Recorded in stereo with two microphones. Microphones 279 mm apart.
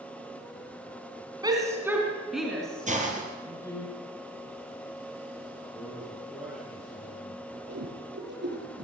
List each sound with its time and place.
1.4 s a shout: 15° right (ahead or behind), 4 m; by 3.9 s 10° left (ahead or behind), 6 m
2.9 s a hiss: 25° right (ahead or behind), 4.5 m
5.7 s a man speaking: centre (ahead or behind), 9.5 m
7.7 s a whoosh: 40° right (ahead or behind), 8.5 m